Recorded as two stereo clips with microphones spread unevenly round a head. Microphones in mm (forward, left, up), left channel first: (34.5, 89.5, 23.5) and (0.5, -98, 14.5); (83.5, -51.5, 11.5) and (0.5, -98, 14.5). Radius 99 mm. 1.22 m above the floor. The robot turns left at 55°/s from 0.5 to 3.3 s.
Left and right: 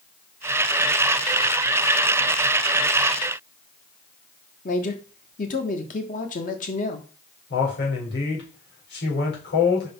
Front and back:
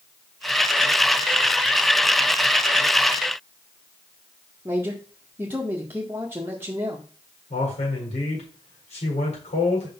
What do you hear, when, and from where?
4.7 s a man speaking: 130° left, 1.6 m
7.5 s a man speaking: 45° left, 4.5 m